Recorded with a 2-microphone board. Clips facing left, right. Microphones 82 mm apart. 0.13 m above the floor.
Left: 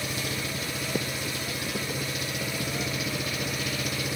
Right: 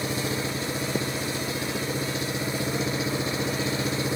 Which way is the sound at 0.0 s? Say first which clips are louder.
Right 4 dB; 25° right (ahead or behind).